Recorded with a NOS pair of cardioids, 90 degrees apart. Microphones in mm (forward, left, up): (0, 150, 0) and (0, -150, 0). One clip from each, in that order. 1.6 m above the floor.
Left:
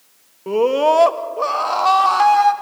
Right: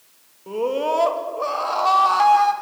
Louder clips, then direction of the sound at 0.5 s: Left 7 dB; 50° left.